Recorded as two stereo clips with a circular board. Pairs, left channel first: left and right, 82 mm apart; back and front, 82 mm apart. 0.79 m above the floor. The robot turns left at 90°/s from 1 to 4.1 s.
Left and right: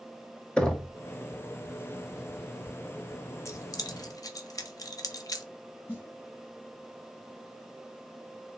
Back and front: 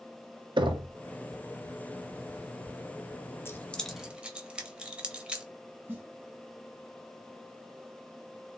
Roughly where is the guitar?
No guitar in this recording.